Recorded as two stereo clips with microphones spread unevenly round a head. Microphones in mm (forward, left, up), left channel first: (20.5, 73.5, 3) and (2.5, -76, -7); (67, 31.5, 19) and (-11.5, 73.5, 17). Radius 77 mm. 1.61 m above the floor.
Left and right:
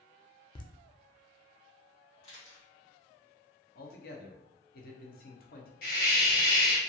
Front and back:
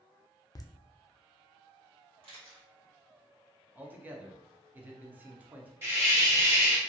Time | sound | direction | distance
0.6 | laughter | 20° left | 0.5 m
2.2 | a camera shutter | 140° left | 1.9 m
3.8 | a man speaking | 80° left | 0.7 m
5.8 | a hiss | 90° left | 1.3 m